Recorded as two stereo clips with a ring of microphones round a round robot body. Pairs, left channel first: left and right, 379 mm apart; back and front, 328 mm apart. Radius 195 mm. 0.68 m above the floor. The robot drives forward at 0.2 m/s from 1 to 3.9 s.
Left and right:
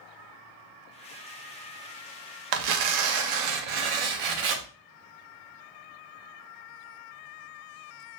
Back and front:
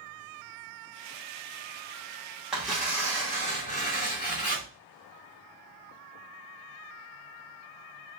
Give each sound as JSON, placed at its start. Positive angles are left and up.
{"t": 2.5, "sound": "tearing paper", "azimuth_deg": -90, "distance_m": 0.6}